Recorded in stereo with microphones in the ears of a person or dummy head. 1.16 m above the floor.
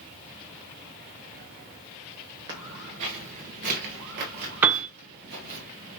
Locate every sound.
2.5 s footsteps: 15° right (ahead or behind), 1.2 m; by 5.6 s 55° right (ahead or behind), 2.5 m
4.6 s a piano: 10° right (ahead or behind), 0.6 m